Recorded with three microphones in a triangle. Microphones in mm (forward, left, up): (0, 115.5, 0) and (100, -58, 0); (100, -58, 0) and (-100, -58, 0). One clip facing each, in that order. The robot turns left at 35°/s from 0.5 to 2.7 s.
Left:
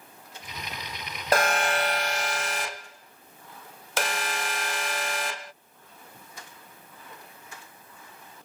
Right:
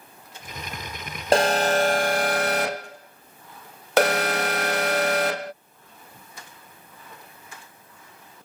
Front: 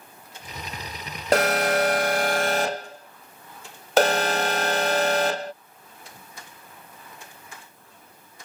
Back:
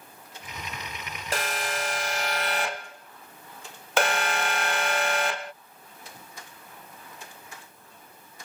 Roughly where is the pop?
No pop in this recording.